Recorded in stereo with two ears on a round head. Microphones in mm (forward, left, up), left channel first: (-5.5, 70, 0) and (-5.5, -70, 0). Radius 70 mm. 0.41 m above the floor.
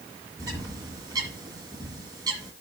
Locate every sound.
0.4 s a bird: 25° right (ahead or behind), 1.6 m